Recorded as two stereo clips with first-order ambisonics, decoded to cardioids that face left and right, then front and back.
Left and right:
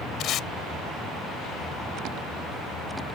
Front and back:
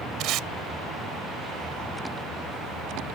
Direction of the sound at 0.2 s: 140° left.